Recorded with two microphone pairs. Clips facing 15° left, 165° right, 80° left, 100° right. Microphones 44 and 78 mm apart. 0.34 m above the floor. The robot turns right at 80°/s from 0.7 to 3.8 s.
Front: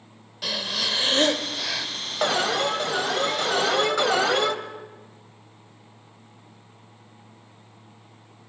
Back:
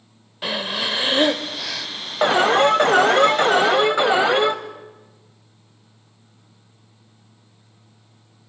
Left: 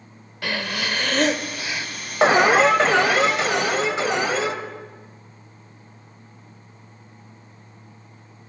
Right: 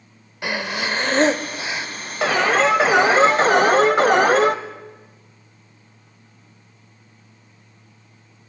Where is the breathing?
150° right, 0.7 m; by 1.9 s 55° right, 0.7 m.